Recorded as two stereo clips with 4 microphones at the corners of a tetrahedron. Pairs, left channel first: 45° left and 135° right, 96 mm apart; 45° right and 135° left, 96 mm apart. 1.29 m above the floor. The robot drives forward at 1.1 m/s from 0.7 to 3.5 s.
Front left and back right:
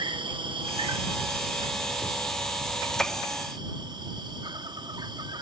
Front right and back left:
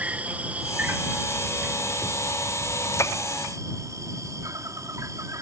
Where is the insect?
155° right; by 5.4 s 170° right.